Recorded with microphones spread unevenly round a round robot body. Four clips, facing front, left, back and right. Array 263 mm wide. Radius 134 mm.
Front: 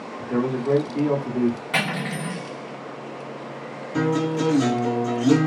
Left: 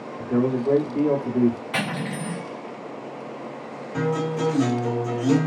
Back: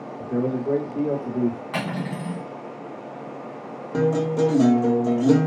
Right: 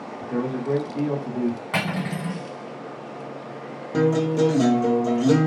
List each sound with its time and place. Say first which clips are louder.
0.2 s a man speaking: left 5 dB, front 1 dB; 80° left, 0.7 m
1.7 s cutlery clinking: right 1 dB, front 1 dB; 85° right, 1.5 m
3.9 s a guitar: right 5 dB, back 1 dB; 130° right, 0.6 m